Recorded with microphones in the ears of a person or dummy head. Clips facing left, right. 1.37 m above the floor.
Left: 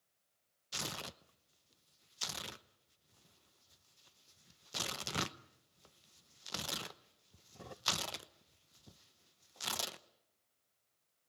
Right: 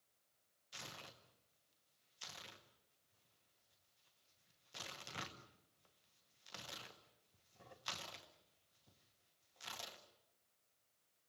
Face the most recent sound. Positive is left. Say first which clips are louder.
# left 11 dB
turn(degrees=75)  # may be behind; listen again after turning